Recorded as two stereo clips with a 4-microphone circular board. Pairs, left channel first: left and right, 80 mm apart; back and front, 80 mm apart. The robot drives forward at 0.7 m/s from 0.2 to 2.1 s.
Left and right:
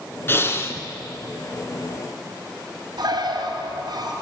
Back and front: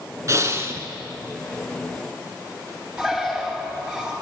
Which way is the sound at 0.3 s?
35° left.